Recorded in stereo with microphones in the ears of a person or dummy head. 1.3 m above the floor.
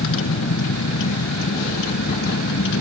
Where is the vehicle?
75° left (ahead or behind); by 2.8 s 65° left (ahead or behind).